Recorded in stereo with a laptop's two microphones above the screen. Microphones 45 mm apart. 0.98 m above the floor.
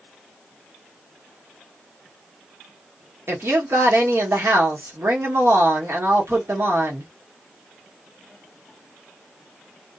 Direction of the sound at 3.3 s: 65° right (ahead or behind).